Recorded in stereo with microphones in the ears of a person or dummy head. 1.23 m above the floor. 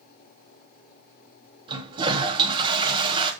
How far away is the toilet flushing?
About 3 m.